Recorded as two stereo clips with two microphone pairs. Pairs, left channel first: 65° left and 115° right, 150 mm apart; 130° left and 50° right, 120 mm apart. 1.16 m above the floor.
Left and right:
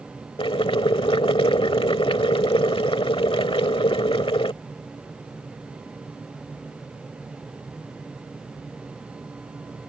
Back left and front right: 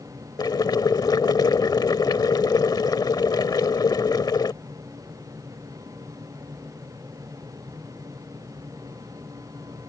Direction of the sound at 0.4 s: 95° left.